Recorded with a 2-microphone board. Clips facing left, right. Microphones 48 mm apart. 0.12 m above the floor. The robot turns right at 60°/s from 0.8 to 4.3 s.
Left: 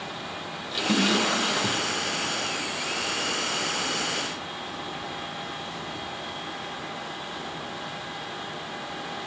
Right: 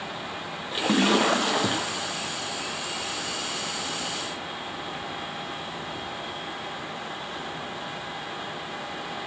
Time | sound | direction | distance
0.7 | a splash | 155° right | 1.3 m